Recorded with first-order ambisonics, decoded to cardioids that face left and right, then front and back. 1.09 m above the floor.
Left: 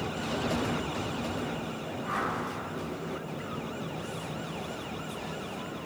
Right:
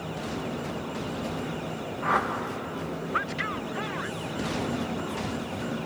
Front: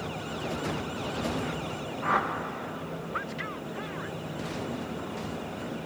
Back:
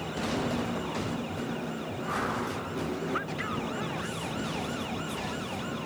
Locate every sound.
2.0 s a whoosh: 50° right, 0.7 m